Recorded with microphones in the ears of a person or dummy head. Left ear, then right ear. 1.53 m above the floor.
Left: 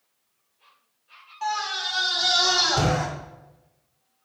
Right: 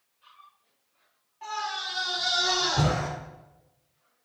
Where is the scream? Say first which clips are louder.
Left 5 dB; 40° left (ahead or behind), 4 m; by 3.1 s 55° left (ahead or behind), 6 m.